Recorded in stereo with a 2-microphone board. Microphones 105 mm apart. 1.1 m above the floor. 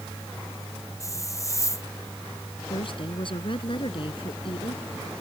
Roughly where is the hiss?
Left.